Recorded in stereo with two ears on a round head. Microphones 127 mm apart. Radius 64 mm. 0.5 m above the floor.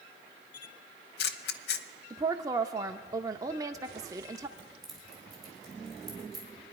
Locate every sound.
0.5 s a camera shutter: 80° left, 0.8 m
2.1 s a woman speaking: 25° right (ahead or behind), 0.7 m
4.6 s keys jangling: centre (ahead or behind), 4 m